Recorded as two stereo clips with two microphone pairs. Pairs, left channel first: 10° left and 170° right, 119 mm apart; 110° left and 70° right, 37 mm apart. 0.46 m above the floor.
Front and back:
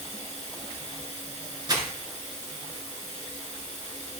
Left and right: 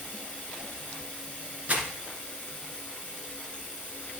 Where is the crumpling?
115° right, 2.5 m.